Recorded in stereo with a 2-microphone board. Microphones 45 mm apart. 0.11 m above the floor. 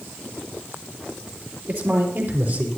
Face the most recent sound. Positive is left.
turn(degrees=-45)  # may be behind; listen again after turning